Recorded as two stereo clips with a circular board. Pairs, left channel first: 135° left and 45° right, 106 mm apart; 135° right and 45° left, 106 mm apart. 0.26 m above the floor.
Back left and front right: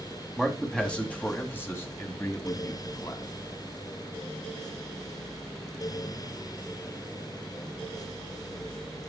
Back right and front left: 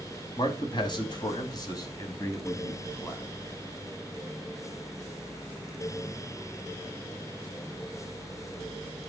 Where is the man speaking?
140° right, 2 m; by 3.2 s 165° left, 2 m.